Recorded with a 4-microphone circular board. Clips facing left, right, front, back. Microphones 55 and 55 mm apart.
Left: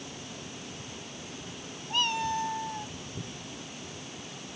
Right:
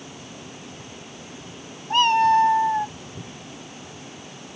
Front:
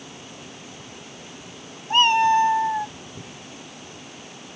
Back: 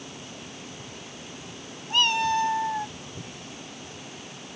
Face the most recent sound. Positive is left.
turn(degrees=-80)